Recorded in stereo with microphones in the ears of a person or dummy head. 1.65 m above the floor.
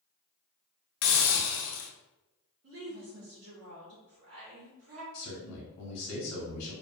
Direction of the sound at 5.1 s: 80° left.